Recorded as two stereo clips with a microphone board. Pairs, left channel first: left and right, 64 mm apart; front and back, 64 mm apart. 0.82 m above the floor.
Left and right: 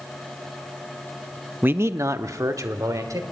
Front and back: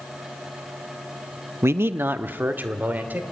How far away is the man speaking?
About 0.5 m.